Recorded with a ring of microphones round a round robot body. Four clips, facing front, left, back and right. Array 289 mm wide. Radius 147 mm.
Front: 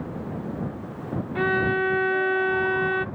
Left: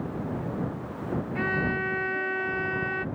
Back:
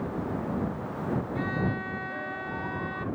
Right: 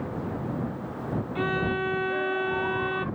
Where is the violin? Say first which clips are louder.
Right 2 dB, front 7 dB; 10° right.